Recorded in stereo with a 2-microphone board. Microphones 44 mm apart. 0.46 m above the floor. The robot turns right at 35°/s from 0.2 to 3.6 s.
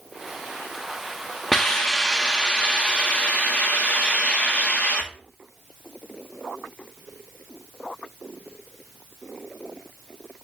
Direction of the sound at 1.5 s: 5° left (ahead or behind).